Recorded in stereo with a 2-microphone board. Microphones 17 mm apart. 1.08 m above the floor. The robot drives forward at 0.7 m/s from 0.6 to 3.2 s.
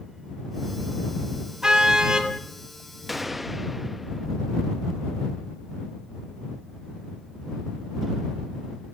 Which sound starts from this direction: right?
A car horn, at 1.6 s.